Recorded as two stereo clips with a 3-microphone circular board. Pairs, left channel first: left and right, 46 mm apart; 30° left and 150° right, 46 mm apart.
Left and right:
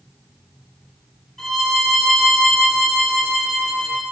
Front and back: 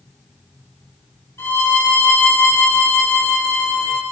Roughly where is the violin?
Ahead.